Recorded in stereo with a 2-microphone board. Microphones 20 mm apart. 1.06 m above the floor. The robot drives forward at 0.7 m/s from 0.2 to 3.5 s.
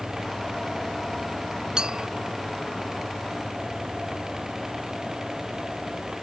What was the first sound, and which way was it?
A clink, 40° right (ahead or behind).